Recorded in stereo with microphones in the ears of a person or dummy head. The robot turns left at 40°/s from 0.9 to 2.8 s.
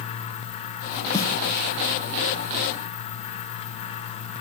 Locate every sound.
1.1 s a snare drum: 20° left (ahead or behind), 2 m; by 1.3 s 15° left (ahead or behind), 2 m